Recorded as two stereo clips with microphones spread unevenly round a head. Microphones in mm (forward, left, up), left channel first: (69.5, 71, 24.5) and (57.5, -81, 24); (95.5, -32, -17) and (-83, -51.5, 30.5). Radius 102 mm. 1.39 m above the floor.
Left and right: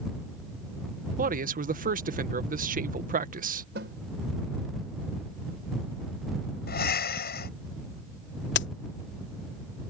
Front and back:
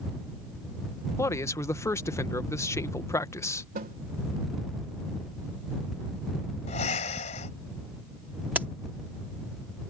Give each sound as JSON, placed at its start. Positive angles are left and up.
{"t": 1.2, "sound": "a man speaking", "azimuth_deg": -65}
{"t": 3.8, "sound": "a snare drum", "azimuth_deg": -135}
{"t": 6.7, "sound": "breathing", "azimuth_deg": 70}
{"t": 8.6, "sound": "a crack", "azimuth_deg": 105}